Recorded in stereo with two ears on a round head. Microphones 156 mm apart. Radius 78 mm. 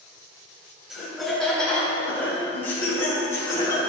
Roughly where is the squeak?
No squeak in this recording.